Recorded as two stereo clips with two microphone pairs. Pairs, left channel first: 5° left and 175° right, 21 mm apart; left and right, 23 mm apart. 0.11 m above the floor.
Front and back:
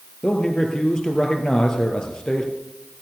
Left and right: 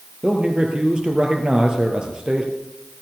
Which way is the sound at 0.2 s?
40° right.